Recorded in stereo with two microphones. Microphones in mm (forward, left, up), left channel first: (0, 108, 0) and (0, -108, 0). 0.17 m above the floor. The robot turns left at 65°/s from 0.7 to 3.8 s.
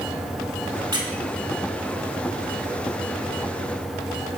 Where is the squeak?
20° right (ahead or behind), 0.7 m; by 1.1 s 25° right (ahead or behind), 0.7 m.